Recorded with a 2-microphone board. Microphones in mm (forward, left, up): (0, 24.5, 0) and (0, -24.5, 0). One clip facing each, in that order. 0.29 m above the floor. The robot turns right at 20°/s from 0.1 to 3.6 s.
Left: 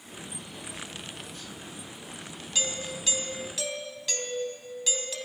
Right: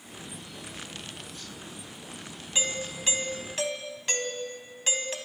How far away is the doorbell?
About 3 m.